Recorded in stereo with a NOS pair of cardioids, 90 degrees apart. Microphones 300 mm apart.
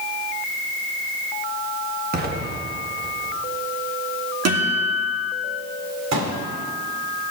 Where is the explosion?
35° right, 1.6 m.